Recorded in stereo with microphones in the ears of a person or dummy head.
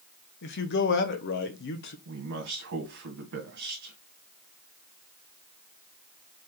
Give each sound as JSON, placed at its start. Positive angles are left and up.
{"t": 0.4, "sound": "a man speaking", "side_deg": 60, "distance_m": 1.1}
{"t": 2.0, "sound": "a man speaking", "side_deg": -70, "distance_m": 1.9}